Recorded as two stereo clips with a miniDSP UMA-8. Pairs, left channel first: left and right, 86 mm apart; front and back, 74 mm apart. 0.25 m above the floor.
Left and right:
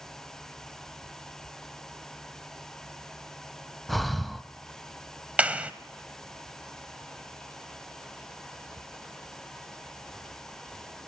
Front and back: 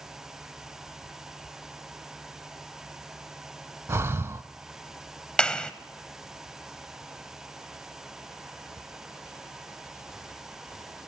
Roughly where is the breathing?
Behind.